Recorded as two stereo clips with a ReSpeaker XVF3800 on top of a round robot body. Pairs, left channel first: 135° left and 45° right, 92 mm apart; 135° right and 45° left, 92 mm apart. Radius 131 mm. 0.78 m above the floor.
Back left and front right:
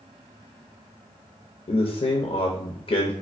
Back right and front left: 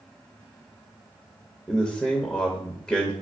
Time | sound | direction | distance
1.7 | a man speaking | 140° left | 0.8 m